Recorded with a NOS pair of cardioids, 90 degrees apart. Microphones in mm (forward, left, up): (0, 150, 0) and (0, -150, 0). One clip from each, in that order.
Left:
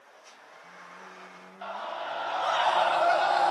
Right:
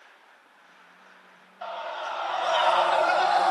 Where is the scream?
40° right, 7 m; by 3.5 s 50° right, 6 m.